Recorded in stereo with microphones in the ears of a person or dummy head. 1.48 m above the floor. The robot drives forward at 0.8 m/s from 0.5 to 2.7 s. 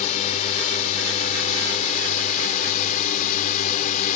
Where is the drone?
30° left (ahead or behind).